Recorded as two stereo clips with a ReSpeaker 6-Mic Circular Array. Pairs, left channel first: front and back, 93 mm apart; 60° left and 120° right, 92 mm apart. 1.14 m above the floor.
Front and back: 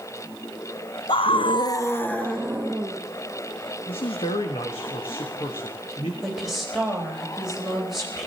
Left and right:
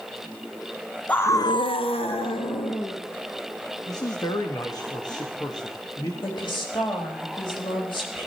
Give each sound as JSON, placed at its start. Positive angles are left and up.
{"t": 1.1, "sound": "a scream", "azimuth_deg": -10, "distance_m": 0.8}
{"t": 3.9, "sound": "a man speaking", "azimuth_deg": 15, "distance_m": 1.3}
{"t": 6.2, "sound": "a woman speaking", "azimuth_deg": 95, "distance_m": 4.5}